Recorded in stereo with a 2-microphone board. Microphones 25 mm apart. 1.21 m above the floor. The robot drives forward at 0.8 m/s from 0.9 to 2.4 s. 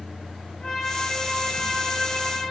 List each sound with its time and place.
0.6 s a trumpet: 30° left (ahead or behind), 1.8 m; by 2.4 s 20° left (ahead or behind), 3 m